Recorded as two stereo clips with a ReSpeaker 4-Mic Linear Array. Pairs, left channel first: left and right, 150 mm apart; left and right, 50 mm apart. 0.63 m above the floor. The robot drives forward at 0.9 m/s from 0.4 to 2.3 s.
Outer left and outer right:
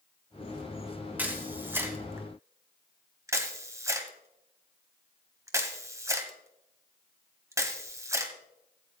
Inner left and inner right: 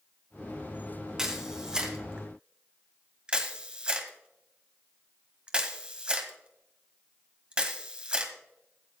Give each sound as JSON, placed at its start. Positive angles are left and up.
{"t": 1.2, "sound": "a camera shutter", "side_deg": -10, "distance_m": 2.5}